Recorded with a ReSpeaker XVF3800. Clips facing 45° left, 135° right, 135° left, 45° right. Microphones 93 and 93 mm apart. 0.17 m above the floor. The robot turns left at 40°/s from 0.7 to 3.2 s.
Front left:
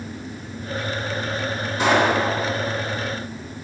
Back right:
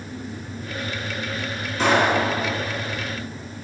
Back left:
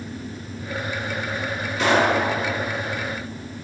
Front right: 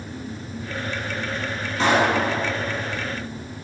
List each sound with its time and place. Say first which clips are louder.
1.8 s a pop: front left 1 dB, even; 30° right, 1.9 m; by 2.1 s 45° right, 1.9 m